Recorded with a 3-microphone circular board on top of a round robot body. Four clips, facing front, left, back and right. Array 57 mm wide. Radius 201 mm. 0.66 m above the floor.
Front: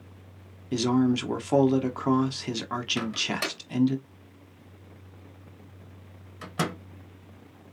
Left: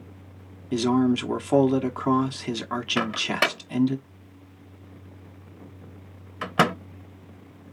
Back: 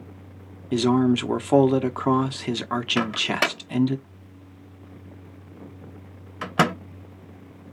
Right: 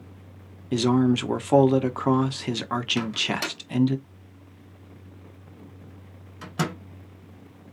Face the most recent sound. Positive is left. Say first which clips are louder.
# left 3 dB, back 9 dB
turn(degrees=135)